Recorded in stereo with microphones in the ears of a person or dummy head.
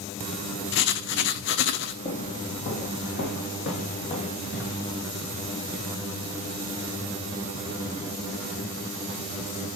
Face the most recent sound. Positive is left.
turn(degrees=55)  # may be behind; listen again after turning